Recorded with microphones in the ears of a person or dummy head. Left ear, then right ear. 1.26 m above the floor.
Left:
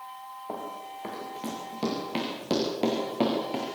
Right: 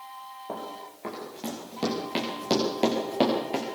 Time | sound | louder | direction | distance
0.5 | running footsteps | left 1 dB | 10° left (ahead or behind) | 6 m